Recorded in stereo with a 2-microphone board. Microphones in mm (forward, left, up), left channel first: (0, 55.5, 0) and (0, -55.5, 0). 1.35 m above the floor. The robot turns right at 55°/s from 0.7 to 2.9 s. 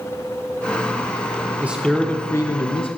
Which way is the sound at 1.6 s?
15° right.